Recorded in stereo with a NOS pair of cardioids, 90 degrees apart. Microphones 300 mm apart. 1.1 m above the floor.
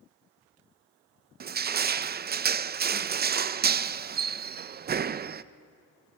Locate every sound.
1.4 s crushing: 35° right, 0.8 m